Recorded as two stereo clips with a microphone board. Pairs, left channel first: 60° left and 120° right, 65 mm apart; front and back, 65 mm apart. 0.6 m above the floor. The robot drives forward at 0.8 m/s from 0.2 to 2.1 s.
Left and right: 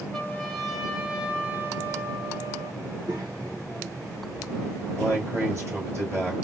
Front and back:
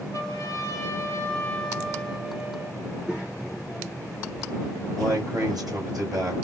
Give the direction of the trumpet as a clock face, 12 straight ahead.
1 o'clock.